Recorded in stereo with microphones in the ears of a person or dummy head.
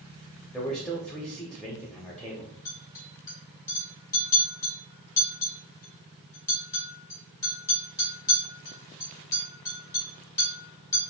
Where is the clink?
20° left (ahead or behind), 1.9 m.